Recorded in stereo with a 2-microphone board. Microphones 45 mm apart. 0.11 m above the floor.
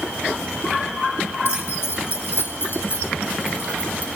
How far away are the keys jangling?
About 3 m.